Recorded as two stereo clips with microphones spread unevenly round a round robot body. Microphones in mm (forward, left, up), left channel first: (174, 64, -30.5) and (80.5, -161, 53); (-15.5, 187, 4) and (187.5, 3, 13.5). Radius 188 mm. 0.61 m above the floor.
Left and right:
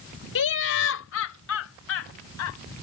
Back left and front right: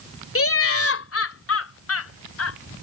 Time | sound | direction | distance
0.3 | laughter | 100° left | ?